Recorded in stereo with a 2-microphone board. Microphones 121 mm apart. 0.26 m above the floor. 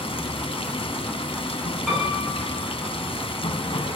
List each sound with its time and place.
0.0 s running water: 50° left (ahead or behind), 1.0 m
1.9 s a piano: 5° left (ahead or behind), 7 m